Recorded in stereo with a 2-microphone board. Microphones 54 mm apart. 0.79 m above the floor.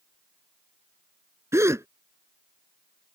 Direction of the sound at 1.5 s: 65° right (ahead or behind).